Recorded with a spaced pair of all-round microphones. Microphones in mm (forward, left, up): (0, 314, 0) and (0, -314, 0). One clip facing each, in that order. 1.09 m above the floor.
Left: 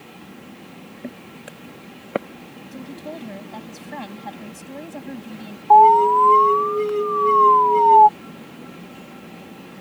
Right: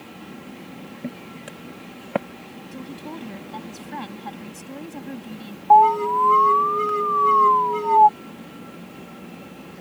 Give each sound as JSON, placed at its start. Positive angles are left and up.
{"t": 1.0, "sound": "footsteps", "side_deg": -30}
{"t": 2.7, "sound": "a woman speaking", "side_deg": 5}
{"t": 5.7, "sound": "an alarm", "side_deg": -10}